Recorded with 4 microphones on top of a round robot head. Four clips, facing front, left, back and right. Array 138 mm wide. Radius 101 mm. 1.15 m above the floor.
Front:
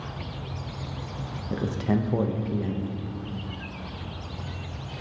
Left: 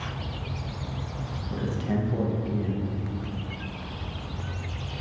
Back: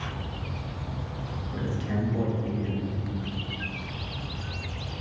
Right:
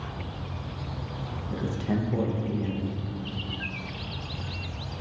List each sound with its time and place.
1.5 s a man speaking: 5° right, 0.8 m